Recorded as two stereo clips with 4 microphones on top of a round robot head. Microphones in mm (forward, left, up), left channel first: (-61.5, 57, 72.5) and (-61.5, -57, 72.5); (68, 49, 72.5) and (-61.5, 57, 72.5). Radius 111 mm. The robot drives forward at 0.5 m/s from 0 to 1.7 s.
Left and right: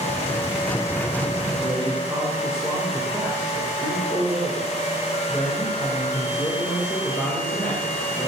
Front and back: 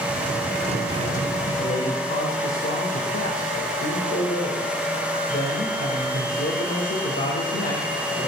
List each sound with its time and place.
1.6 s a man speaking: straight ahead, 4.5 m